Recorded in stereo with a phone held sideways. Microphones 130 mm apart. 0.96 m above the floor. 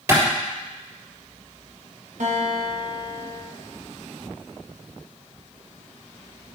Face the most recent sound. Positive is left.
turn(degrees=-70)  # may be behind; listen again after turning